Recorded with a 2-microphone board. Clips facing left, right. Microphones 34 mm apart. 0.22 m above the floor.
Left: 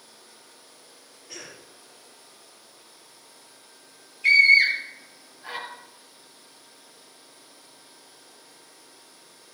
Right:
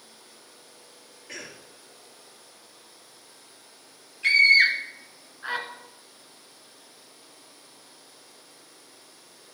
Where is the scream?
60° right (ahead or behind), 3.5 m.